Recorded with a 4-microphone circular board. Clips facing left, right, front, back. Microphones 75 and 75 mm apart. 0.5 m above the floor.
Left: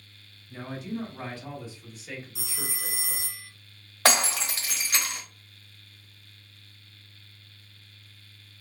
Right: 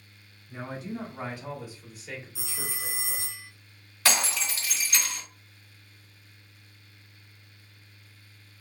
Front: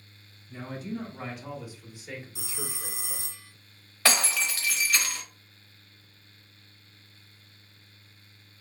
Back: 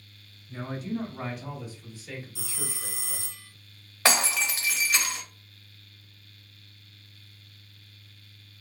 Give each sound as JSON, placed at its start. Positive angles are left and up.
{"t": 0.5, "sound": "a man speaking", "azimuth_deg": -125, "distance_m": 1.1}
{"t": 2.4, "sound": "a phone ringing", "azimuth_deg": 50, "distance_m": 0.8}
{"t": 4.0, "sound": "breaking glass", "azimuth_deg": 110, "distance_m": 1.2}